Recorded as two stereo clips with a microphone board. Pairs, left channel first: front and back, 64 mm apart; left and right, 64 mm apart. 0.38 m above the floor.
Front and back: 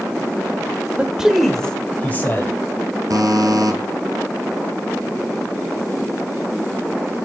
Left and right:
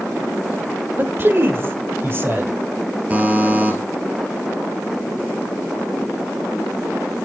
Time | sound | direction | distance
1.0 | a man speaking | 120° right | 1.1 m
3.1 | a buzzer | 155° right | 1.5 m